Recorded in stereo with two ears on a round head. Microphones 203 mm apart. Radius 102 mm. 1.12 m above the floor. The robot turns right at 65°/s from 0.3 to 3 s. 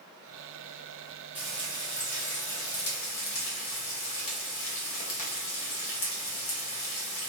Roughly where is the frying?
Ahead.